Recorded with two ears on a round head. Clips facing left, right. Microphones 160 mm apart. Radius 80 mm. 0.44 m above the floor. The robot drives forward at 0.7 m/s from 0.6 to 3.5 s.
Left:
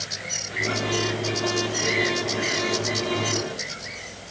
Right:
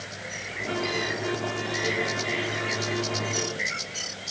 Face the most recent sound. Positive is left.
No sound to turn to.